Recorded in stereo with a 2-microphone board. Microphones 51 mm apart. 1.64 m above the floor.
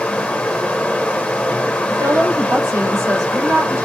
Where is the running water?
25° left (ahead or behind), 0.9 m.